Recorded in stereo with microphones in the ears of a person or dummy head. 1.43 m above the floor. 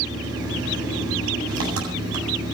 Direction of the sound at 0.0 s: 80° right.